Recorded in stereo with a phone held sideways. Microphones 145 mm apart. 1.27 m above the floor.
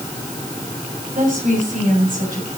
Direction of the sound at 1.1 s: 70° right (ahead or behind).